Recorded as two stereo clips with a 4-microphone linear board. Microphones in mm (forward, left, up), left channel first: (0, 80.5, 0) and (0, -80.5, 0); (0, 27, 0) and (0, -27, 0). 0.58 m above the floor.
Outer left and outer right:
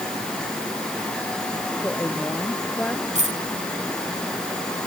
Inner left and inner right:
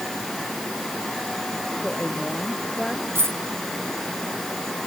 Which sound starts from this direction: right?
A dropped coin, at 3.1 s.